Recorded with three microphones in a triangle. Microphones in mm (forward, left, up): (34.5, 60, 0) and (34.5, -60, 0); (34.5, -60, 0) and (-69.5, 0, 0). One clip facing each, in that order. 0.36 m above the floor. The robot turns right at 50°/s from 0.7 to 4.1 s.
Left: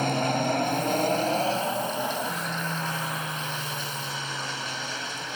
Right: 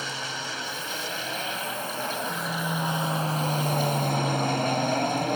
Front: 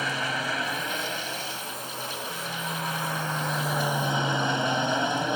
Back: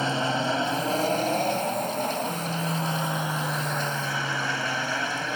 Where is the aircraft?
95° left; by 5.4 s 95° right.